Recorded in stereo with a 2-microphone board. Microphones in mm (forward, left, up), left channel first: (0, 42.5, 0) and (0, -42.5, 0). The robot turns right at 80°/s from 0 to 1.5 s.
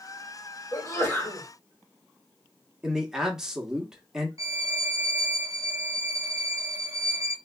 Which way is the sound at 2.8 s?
10° right (ahead or behind).